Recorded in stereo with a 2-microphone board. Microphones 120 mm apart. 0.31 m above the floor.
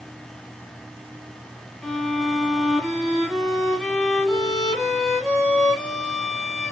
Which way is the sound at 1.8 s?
Centre (ahead or behind).